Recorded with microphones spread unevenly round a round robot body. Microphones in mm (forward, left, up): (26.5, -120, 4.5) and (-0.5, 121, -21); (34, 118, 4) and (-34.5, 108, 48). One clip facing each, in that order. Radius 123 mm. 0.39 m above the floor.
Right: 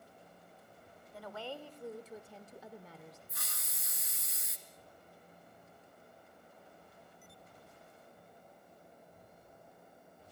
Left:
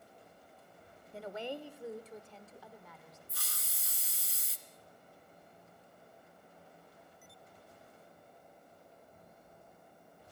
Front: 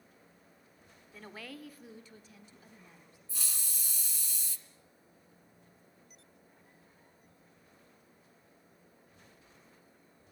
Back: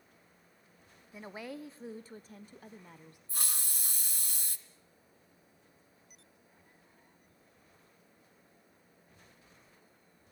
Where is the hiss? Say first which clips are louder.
Even, back 4 dB; 155° left, 2.0 m.